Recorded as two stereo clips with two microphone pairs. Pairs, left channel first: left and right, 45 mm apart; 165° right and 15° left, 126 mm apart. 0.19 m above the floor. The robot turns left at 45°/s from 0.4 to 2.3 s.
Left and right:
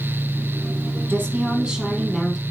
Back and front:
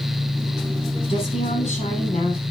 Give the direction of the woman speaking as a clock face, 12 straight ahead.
4 o'clock.